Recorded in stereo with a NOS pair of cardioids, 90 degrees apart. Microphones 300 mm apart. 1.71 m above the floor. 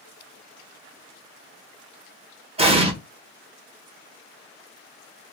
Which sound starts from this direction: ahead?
An explosion, at 2.6 s.